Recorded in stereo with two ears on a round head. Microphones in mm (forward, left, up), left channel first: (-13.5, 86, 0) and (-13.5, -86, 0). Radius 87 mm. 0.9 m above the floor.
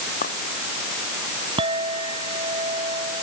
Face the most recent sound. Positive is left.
turn(degrees=-25)  # may be behind; listen again after turning